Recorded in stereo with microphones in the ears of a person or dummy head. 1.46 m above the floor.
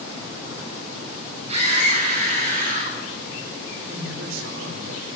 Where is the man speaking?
85° right, 4 m.